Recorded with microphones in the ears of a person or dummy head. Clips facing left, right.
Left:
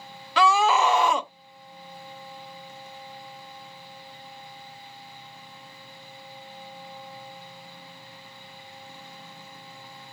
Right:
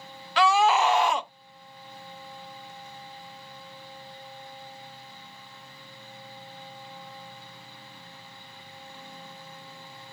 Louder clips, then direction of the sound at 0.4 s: Even; 70° left (ahead or behind).